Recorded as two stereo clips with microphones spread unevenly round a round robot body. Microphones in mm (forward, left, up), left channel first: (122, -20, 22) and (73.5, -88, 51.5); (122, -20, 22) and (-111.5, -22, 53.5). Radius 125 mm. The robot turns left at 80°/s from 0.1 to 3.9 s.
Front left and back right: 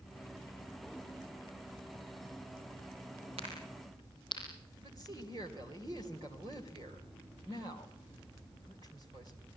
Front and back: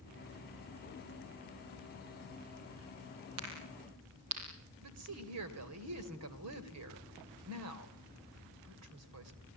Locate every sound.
3.4 s a crack: 150° right, 9 m; by 4.4 s 170° left, 9 m
4.8 s a woman speaking: 170° left, 3 m